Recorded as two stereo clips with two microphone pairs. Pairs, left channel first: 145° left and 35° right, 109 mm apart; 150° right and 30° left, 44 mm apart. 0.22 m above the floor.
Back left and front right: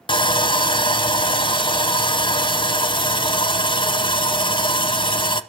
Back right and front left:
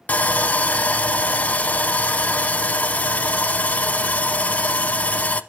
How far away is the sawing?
About 0.8 m.